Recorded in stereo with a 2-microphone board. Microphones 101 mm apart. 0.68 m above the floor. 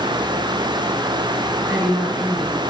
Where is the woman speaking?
5° left (ahead or behind), 3 m.